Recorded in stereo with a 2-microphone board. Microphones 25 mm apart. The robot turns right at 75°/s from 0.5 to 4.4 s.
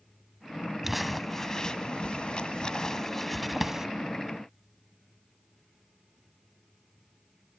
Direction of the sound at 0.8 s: 10° right (ahead or behind).